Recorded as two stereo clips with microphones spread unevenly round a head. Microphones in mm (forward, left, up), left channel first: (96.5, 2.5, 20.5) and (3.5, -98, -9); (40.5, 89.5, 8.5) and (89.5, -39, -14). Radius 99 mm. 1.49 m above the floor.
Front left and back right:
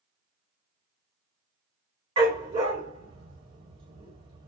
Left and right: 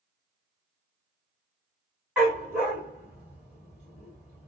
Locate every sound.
2.2 s a dog barking: 160° right, 1.3 m